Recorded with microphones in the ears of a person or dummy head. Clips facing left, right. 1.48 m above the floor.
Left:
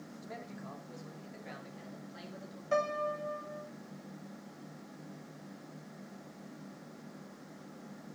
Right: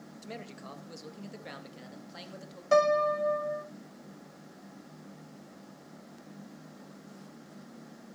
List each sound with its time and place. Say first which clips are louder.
0.2 s a man speaking: right 3 dB; 50° right (ahead or behind), 2 m; by 2.6 s 80° right, 3.5 m
2.7 s a piano: right 9 dB; 60° right (ahead or behind), 1.1 m